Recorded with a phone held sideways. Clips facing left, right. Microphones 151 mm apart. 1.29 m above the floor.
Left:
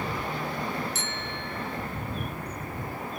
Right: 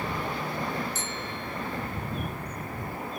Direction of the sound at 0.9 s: 75° left (ahead or behind).